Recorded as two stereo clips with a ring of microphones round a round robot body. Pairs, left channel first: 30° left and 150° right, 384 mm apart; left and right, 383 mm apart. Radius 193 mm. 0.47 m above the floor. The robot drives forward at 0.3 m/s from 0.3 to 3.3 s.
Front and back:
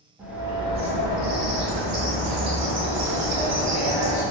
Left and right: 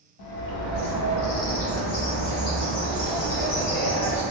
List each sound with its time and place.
0.2 s a bird: 125° left, 0.5 m; by 4.2 s 160° left, 1.2 m